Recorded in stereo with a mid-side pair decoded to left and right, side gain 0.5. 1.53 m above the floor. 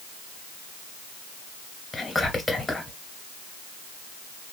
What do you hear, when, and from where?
1.9 s whispering: 25° left, 1.8 m